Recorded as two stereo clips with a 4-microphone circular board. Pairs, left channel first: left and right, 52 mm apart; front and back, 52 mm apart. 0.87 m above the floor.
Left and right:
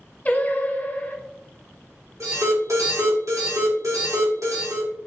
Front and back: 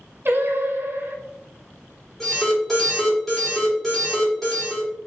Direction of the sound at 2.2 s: 80° right.